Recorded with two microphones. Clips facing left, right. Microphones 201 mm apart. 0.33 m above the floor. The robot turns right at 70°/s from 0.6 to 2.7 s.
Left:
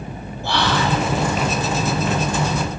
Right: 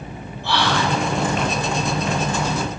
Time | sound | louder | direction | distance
0.4 | whispering | left 1 dB | 45° left (ahead or behind) | 2.5 m